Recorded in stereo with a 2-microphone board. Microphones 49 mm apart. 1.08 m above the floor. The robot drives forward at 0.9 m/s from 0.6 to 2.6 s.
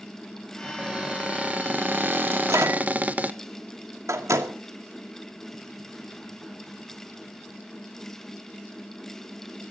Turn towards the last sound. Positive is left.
turn(degrees=-80)